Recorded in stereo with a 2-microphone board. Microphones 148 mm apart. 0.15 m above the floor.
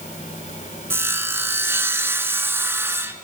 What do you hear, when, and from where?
0.9 s sawing: 15° right (ahead or behind), 0.8 m